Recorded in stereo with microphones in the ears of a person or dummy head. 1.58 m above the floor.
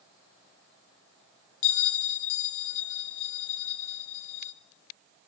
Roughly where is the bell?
Left.